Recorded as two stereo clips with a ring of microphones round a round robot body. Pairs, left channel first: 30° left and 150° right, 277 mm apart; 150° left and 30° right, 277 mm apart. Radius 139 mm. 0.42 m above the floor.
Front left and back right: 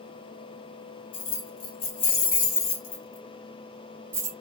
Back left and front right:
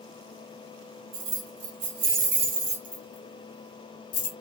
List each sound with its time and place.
1.1 s keys jangling: 10° left, 1.2 m; by 4.3 s 135° left, 0.8 m